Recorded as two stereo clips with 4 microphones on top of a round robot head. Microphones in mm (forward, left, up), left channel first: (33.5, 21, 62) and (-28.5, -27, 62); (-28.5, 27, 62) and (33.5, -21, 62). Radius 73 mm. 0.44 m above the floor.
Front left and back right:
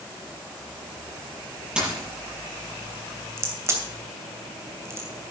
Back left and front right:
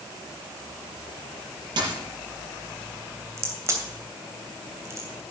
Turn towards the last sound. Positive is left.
turn(degrees=-90)